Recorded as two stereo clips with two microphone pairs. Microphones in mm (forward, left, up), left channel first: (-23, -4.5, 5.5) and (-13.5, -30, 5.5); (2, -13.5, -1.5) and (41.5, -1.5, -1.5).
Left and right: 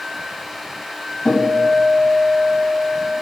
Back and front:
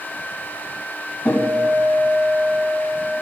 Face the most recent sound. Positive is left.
turn(degrees=155)